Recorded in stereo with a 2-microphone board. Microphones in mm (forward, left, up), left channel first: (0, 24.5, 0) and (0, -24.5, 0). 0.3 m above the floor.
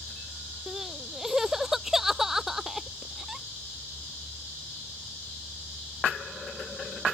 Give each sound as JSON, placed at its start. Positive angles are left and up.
{"t": 0.7, "sound": "crying", "side_deg": -5}